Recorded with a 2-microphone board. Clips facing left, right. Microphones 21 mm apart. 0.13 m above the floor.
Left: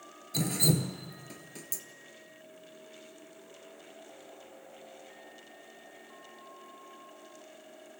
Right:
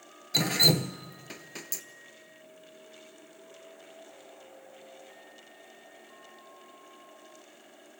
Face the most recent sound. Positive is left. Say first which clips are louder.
# right 6 dB
turn(degrees=-45)  # may be behind; listen again after turning